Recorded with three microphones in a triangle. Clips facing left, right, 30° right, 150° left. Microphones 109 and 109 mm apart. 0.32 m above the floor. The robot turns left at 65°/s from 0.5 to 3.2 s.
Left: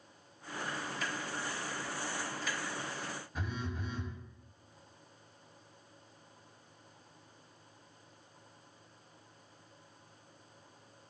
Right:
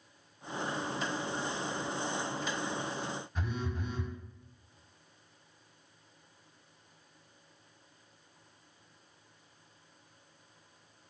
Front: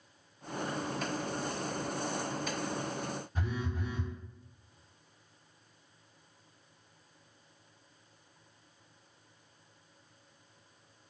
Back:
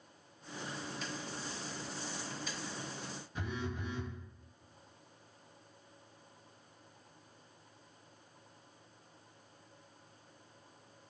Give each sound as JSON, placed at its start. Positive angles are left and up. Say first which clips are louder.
{"t": 3.4, "sound": "a phone buzzing", "louder": "even, back 1 dB", "azimuth_deg": 5, "distance_m": 1.0}